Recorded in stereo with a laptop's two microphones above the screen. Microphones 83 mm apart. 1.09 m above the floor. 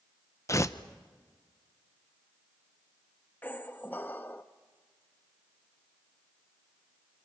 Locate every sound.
0.5 s tearing paper: 40° left (ahead or behind), 0.8 m
3.4 s a squeak: 20° left (ahead or behind), 0.6 m